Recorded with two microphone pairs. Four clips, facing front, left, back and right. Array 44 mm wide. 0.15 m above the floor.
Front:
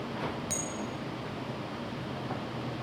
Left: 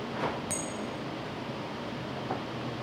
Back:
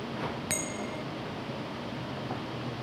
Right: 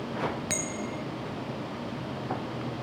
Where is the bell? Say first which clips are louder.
Right 2 dB, back 2 dB; 140° right, 0.6 m.